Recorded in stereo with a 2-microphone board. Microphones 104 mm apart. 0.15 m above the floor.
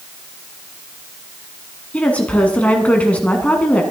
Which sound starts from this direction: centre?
A woman speaking, at 1.9 s.